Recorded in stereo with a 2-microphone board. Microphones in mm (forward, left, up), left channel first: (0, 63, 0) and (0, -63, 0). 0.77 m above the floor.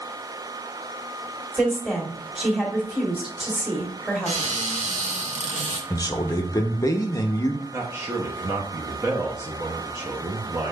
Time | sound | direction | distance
1.5 | a woman speaking | 5° right (ahead or behind) | 1.8 m
4.3 | a cupboard door | 80° right | 1.4 m
5.9 | a man speaking | 30° left (ahead or behind) | 0.6 m
7.7 | a man speaking | 30° right (ahead or behind) | 0.8 m